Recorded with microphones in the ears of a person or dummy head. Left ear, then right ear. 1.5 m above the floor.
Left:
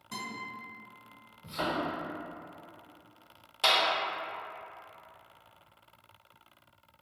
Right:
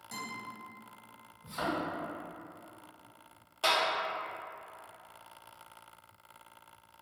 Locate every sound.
0.1 s a guitar: 45° right (ahead or behind), 1.7 m
1.4 s a thud: 45° right (ahead or behind), 1.7 m
3.6 s a clap: 5° left (ahead or behind), 0.9 m